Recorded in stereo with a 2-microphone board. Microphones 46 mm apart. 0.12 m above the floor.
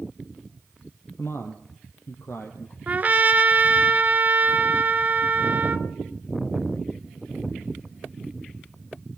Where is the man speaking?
65° left (ahead or behind), 3.5 m; by 2.8 s 70° left (ahead or behind), 4 m.